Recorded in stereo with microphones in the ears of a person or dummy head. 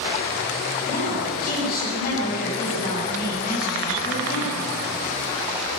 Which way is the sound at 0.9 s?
50° left (ahead or behind).